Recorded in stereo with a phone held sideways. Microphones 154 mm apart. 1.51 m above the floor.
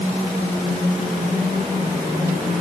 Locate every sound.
Only background noise.